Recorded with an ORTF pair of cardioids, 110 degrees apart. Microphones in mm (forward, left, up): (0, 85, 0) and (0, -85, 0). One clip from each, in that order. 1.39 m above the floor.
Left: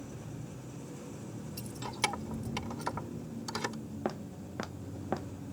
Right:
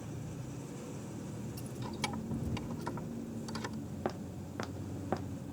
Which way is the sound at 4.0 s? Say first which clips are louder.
Left 2 dB; 10° left.